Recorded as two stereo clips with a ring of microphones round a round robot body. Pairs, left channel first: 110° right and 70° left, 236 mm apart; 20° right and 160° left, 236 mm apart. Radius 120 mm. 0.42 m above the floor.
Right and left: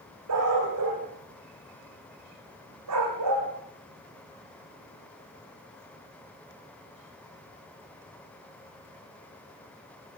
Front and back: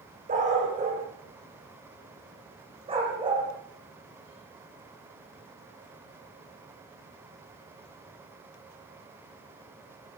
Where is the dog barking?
95° left, 8 m; by 3.5 s 85° left, 9 m.